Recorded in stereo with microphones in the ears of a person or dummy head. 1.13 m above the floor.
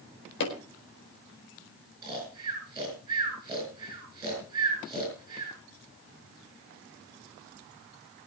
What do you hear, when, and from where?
0.4 s hammering: 65° left (ahead or behind), 4 m
2.0 s snoring: 25° right (ahead or behind), 7.5 m